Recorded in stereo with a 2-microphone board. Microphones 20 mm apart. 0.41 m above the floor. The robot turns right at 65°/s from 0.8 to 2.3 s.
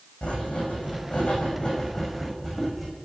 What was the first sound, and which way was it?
Writing, 75° left.